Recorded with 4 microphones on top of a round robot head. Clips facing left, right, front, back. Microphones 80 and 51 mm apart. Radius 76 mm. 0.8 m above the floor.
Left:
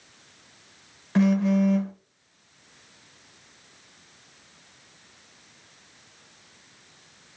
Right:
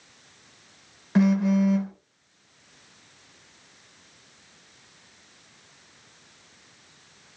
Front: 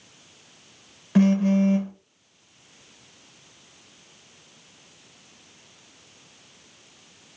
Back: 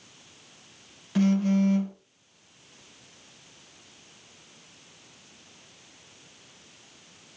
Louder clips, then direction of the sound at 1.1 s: Even, front 4 dB; 20° right.